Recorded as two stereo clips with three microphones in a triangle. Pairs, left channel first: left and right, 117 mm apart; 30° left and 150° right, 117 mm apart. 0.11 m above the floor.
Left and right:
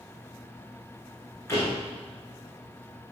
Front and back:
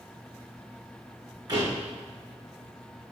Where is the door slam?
155° left, 5.5 m.